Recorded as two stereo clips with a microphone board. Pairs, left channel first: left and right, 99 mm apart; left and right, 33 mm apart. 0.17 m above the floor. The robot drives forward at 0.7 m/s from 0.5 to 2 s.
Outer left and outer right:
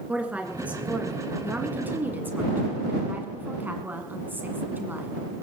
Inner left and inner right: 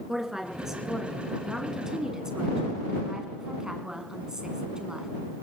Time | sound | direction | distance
0.1 | a woman speaking | 15° right (ahead or behind) | 2.5 m